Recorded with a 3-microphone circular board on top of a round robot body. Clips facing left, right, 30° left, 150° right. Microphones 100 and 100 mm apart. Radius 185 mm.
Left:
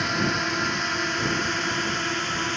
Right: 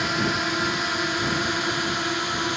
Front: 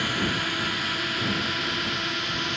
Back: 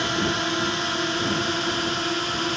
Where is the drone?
175° right; by 2.6 s 160° right.